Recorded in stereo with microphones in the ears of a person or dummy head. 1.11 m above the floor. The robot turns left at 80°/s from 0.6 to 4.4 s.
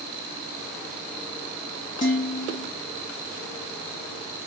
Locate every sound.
2.0 s dishes clattering: 145° left, 1.0 m; by 2.7 s 85° left, 1.0 m